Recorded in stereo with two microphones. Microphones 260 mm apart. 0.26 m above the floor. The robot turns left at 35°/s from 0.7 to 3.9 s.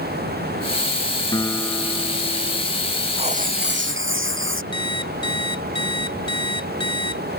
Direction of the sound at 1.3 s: 15° left.